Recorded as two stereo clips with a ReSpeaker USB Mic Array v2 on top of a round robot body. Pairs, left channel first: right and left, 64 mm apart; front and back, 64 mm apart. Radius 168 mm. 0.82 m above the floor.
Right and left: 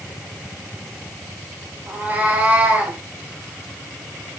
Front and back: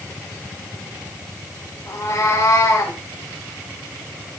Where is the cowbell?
I don't hear a cowbell.